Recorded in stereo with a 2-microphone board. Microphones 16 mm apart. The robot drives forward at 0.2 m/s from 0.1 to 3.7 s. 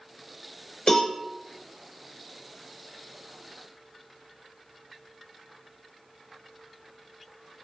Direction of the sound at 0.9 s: 50° left (ahead or behind).